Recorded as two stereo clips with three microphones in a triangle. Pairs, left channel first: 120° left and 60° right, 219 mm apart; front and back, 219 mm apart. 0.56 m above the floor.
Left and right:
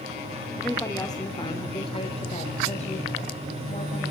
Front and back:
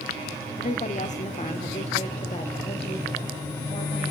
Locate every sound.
0.6 s a woman speaking: 40° left, 1.0 m; by 4.1 s 65° left, 3 m